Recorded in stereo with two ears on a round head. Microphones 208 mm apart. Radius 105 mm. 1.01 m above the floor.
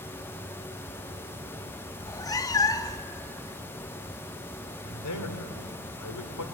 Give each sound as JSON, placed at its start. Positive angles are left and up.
{"t": 2.0, "sound": "a cat meowing", "side_deg": 15, "distance_m": 0.8}
{"t": 4.8, "sound": "a man speaking", "side_deg": 85, "distance_m": 3.0}